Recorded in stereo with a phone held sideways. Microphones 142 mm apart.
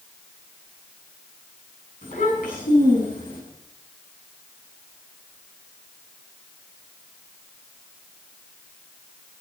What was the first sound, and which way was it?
A child speaking, 65° left (ahead or behind).